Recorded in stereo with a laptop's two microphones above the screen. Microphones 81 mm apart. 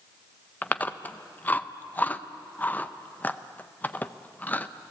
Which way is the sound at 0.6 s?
20° left (ahead or behind).